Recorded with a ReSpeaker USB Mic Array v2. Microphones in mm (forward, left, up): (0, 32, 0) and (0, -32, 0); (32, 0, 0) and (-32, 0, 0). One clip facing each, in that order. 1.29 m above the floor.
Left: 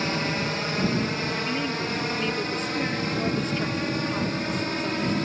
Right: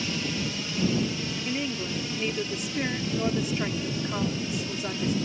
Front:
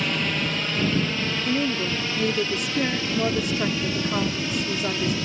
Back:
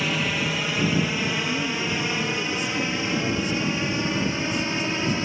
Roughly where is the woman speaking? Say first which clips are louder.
Left 3 dB, front 2 dB; ahead.